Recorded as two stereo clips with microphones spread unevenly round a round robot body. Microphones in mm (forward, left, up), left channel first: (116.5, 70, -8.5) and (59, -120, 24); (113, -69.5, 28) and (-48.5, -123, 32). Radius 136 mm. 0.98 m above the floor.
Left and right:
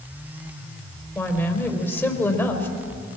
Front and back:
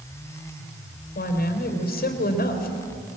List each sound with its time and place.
1.1 s a woman speaking: 10° right, 4 m